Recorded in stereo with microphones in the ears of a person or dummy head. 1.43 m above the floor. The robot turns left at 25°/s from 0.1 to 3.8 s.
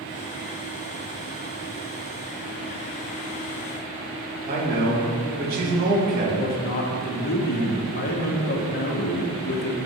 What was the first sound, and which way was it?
A man speaking, 50° right (ahead or behind).